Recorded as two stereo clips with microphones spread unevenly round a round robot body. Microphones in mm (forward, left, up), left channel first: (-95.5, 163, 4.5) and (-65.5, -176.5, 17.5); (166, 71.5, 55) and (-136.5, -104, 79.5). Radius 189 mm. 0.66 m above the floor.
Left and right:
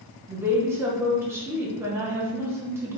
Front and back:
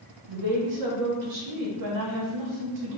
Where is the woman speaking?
170° right, 0.9 m.